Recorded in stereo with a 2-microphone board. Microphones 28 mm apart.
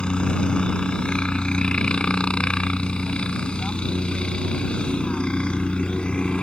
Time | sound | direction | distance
0.0 | a helicopter | 40° left (ahead or behind) | ?